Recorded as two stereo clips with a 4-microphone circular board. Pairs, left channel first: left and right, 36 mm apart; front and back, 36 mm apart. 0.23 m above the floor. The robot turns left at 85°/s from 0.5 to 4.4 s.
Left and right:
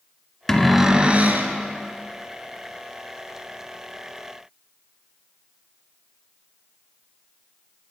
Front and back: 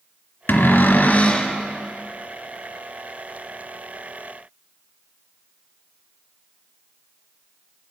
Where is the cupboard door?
10° left, 0.9 m; by 1.5 s 75° right, 0.9 m.